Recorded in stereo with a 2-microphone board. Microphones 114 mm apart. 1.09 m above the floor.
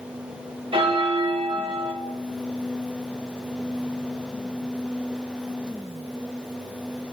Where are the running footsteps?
No running footsteps in this recording.